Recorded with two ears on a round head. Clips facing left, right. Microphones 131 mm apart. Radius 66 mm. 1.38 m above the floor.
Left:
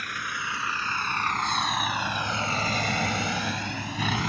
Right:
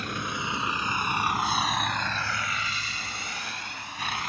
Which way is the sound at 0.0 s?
25° right (ahead or behind).